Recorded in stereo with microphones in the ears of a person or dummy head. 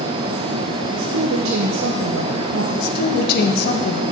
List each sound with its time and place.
0.9 s a woman speaking: 90° right, 1.0 m
2.7 s a woman speaking: 65° left (ahead or behind), 1.5 m